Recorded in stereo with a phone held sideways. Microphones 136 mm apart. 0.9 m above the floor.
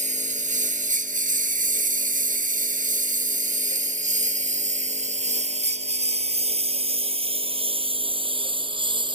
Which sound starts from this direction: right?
A lawn mower, at 0.0 s.